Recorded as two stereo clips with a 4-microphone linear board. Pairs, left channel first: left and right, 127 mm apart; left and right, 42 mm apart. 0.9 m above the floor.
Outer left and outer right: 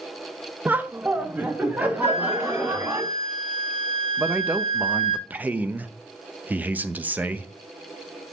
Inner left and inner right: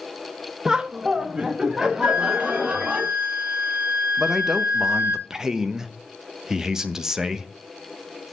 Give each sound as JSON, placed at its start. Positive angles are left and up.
{"t": 0.7, "sound": "laughter", "side_deg": -15, "distance_m": 0.5}
{"t": 2.0, "sound": "a flute", "side_deg": -55, "distance_m": 1.1}
{"t": 4.2, "sound": "a man speaking", "side_deg": -15, "distance_m": 0.5}